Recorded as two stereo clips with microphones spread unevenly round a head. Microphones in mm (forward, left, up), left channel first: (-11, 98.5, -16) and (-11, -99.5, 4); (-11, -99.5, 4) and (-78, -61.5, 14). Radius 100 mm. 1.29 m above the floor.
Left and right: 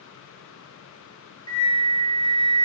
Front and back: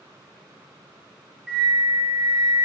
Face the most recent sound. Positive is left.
turn(degrees=65)